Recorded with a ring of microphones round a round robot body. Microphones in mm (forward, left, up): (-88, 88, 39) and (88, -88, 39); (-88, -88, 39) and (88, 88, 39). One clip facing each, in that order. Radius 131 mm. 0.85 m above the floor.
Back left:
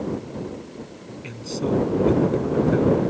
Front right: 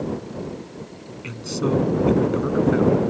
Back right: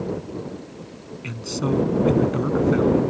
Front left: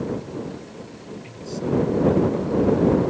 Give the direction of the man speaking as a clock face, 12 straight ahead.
4 o'clock.